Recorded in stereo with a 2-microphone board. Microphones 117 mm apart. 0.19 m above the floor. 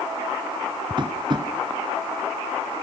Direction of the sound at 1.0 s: 40° right (ahead or behind).